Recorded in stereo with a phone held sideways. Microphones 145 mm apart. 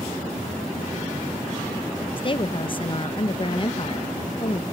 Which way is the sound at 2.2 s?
35° left (ahead or behind).